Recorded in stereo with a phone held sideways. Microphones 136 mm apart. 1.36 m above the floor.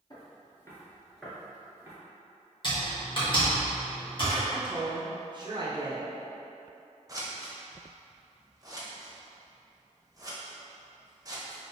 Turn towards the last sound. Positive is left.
turn(degrees=-25)  # may be behind; listen again after turning